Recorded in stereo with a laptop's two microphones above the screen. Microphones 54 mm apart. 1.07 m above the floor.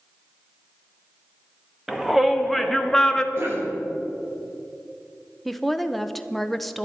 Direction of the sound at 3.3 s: 45° right (ahead or behind).